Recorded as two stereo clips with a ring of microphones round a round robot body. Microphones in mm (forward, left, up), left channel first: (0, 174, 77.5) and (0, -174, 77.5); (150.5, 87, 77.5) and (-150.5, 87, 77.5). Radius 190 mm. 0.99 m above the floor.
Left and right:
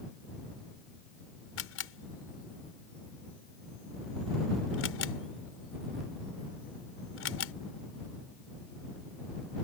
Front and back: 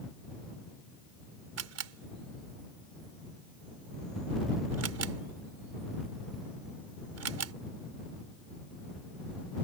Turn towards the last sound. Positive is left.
turn(degrees=145)